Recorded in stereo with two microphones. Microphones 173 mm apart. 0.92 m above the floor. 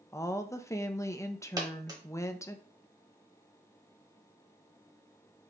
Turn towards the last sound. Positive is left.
turn(degrees=-20)  # may be behind; listen again after turning